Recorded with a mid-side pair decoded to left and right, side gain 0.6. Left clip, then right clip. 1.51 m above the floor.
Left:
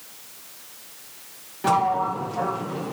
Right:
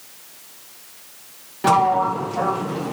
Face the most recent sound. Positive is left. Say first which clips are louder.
# right 4 dB
turn(degrees=-30)